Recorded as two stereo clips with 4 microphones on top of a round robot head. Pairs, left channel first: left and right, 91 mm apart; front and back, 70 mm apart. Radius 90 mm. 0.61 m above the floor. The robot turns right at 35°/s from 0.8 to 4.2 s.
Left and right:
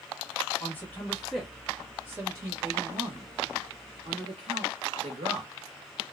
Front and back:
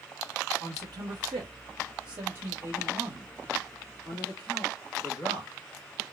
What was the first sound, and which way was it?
A man speaking, 160° left.